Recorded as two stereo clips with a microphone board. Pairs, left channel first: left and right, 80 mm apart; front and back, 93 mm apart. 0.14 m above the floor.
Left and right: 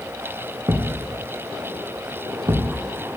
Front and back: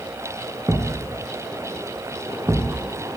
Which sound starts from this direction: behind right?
A thud, at 0.7 s.